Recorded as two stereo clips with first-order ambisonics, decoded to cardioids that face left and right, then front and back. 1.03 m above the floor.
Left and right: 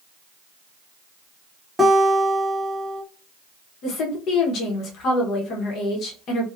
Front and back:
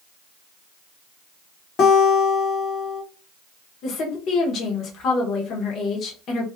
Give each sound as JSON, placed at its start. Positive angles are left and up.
{"t": 1.8, "sound": "a guitar", "azimuth_deg": -5, "distance_m": 0.6}
{"t": 3.8, "sound": "a woman speaking", "azimuth_deg": 50, "distance_m": 1.0}